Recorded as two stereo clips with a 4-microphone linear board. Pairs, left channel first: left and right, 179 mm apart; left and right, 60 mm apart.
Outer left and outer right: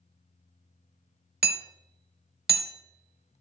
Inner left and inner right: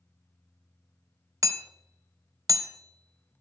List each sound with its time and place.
1.4 s hammering: 65° right (ahead or behind), 1.0 m